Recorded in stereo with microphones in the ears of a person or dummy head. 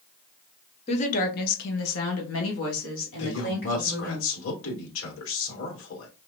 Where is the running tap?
No running tap in this recording.